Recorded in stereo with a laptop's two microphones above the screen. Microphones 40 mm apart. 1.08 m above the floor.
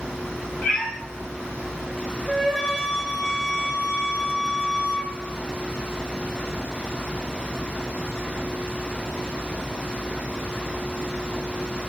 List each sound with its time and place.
0.6 s a cat meowing: 10° left (ahead or behind), 1.8 m
2.3 s a flute: 15° right (ahead or behind), 0.9 m